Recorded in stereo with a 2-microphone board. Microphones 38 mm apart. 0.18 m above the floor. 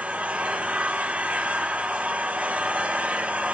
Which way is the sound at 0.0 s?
40° right (ahead or behind).